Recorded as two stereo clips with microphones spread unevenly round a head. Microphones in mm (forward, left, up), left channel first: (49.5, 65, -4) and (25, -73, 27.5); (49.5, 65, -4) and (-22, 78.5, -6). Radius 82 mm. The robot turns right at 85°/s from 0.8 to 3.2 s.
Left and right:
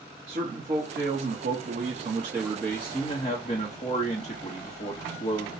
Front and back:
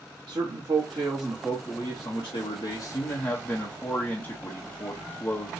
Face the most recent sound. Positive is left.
turn(degrees=50)